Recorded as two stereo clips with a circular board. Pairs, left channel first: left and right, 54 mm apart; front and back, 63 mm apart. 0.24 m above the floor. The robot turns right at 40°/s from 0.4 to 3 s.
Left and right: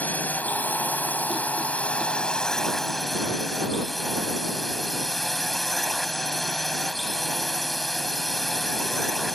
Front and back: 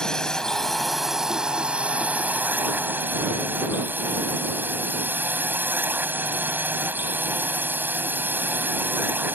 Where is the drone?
70° left; by 9.4 s 175° left.